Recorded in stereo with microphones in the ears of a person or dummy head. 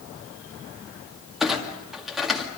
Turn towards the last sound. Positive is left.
turn(degrees=0)  # may be behind; listen again after turning